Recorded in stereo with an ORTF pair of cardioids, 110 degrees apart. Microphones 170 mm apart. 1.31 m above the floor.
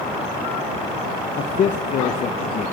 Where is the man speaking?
45° left, 0.7 m.